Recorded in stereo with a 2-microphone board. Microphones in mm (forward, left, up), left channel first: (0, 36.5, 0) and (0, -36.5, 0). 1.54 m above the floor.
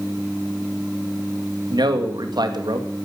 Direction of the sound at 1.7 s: 70° right (ahead or behind).